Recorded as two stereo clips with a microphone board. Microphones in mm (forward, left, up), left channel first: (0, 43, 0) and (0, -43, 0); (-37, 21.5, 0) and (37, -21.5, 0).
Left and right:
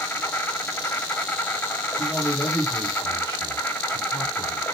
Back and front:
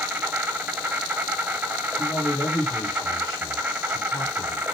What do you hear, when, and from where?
0.0 s an insect: 30° left, 1.0 m
2.0 s a man speaking: 125° left, 2.0 m